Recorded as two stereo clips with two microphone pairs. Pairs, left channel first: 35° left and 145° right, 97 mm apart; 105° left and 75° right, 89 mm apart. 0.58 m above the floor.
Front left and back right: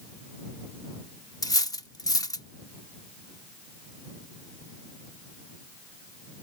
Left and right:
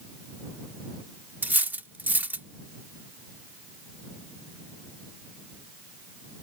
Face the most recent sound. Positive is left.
turn(degrees=-5)